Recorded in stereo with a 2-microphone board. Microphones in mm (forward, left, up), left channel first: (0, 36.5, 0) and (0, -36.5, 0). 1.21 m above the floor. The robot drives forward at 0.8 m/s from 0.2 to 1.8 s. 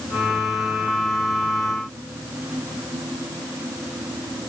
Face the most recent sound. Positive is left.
No sound to turn to.